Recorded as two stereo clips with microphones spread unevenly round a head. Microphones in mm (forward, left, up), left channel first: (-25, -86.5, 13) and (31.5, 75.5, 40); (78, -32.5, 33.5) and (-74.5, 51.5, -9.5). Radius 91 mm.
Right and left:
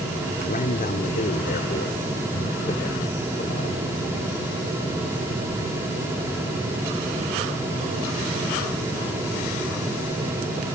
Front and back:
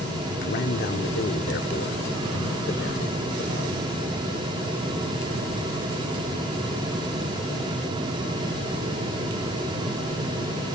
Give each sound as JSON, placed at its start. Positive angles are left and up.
{"t": 0.4, "sound": "a man speaking", "azimuth_deg": -60}